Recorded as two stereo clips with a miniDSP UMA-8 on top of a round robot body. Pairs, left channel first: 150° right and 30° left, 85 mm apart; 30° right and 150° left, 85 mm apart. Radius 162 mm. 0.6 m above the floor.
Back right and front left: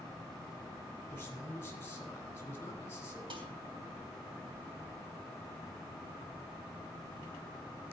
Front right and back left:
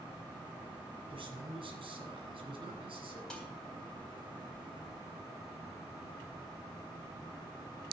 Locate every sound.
1.1 s a man speaking: 145° left, 4 m
3.3 s dishes clattering: 50° left, 3.5 m